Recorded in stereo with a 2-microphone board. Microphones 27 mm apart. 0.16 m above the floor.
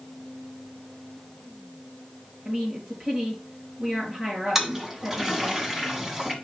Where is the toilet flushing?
15° right (ahead or behind), 1.5 m.